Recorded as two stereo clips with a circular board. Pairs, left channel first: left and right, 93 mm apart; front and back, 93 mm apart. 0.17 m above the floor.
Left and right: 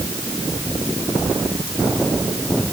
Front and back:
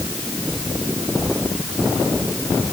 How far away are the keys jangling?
I don't hear keys jangling.